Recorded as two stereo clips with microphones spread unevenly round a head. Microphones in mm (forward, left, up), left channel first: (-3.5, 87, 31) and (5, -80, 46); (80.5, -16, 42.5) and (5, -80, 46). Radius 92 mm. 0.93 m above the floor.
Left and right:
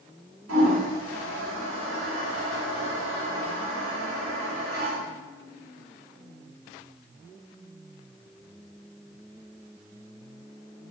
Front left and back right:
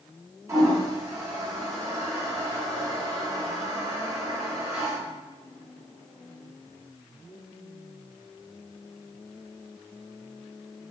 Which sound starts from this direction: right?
A toilet flushing, at 0.5 s.